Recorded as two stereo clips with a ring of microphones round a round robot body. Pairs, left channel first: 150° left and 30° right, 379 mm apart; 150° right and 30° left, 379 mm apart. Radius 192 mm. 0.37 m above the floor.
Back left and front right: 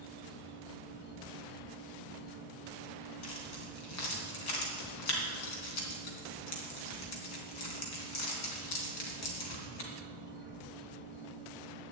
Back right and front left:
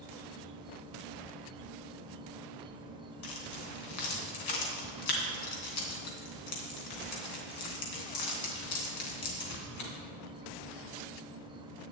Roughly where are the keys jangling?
Behind.